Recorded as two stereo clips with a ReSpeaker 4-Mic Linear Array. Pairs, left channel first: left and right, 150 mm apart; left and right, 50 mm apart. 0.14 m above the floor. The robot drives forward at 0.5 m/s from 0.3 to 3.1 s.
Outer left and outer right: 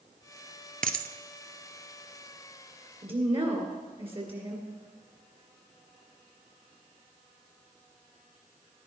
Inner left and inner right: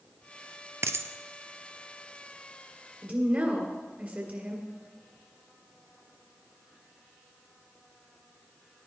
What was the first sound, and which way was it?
A dropped coin, 70° right (ahead or behind).